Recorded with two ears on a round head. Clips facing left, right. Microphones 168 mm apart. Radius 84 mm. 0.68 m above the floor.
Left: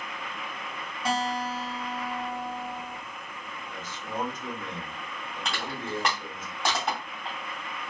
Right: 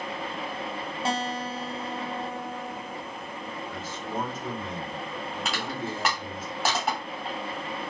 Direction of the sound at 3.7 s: 5° right (ahead or behind).